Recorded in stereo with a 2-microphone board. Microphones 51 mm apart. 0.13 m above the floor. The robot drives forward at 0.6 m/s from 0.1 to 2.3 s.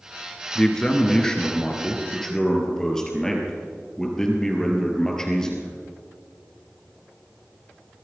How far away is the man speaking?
About 1.6 m.